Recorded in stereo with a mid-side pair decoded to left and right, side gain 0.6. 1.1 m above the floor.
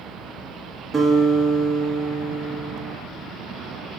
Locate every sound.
0.9 s a guitar: 20° right, 1.6 m